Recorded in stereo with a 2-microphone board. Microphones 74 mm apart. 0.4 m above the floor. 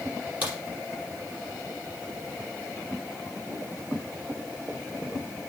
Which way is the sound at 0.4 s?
25° left (ahead or behind).